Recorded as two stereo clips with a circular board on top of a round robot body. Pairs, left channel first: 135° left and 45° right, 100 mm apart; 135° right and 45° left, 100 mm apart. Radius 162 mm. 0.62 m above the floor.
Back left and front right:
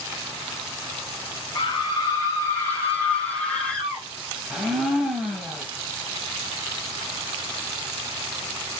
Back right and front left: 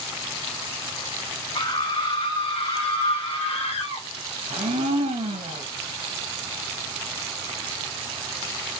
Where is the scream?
175° right, 4 m; by 4.0 s 140° right, 5 m.